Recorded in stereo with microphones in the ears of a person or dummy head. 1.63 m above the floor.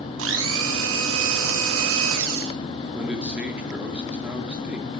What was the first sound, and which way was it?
A blender, 75° right (ahead or behind).